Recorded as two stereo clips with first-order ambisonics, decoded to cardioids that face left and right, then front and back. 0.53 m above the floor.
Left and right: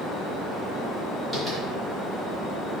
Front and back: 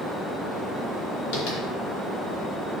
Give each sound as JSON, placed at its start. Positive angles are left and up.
{"t": 1.3, "sound": "tapping", "azimuth_deg": 15, "distance_m": 2.5}